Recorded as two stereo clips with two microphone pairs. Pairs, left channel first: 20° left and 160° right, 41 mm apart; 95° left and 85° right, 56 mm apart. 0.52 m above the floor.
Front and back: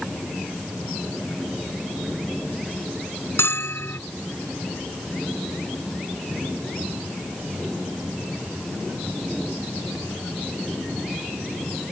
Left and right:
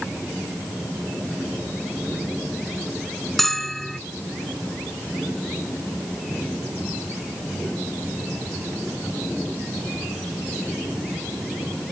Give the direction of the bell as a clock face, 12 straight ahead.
12 o'clock.